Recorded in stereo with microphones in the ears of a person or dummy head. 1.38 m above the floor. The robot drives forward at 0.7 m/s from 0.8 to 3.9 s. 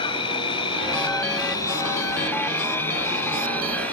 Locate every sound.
0.0 s an insect: 25° left (ahead or behind); by 3.9 s 10° left (ahead or behind)